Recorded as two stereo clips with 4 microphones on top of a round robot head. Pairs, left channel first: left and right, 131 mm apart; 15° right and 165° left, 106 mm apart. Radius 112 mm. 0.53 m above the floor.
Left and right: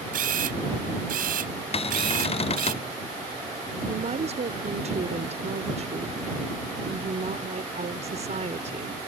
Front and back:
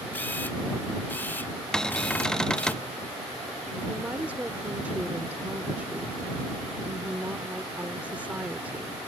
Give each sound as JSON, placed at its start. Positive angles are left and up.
{"t": 0.1, "sound": "a camera shutter", "azimuth_deg": -90}
{"t": 1.7, "sound": "a cupboard door", "azimuth_deg": 70}
{"t": 3.9, "sound": "a woman speaking", "azimuth_deg": -115}